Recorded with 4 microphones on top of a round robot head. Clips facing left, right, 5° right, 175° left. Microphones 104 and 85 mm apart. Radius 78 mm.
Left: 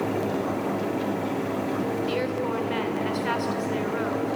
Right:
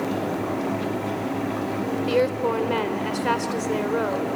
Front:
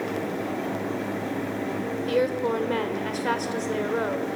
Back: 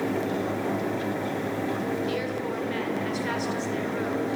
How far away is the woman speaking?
About 1.8 m.